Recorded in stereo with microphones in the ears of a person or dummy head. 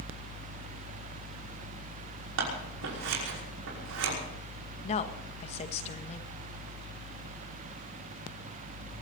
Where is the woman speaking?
40° left (ahead or behind), 1.5 m.